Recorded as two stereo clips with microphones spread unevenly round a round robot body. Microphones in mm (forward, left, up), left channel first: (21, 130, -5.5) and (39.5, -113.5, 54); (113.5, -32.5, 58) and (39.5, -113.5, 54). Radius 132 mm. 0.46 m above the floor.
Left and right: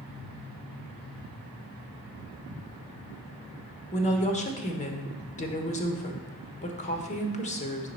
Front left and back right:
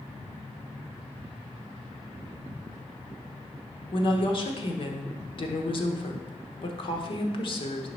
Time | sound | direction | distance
3.9 | a woman speaking | 60° left | 1.1 m